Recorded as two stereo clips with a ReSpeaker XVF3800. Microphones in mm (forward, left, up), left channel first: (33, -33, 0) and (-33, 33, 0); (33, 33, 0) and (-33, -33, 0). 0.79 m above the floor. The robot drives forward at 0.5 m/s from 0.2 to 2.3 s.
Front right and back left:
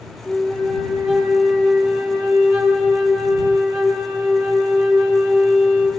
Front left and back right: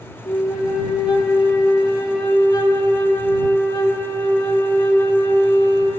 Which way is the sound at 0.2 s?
50° left.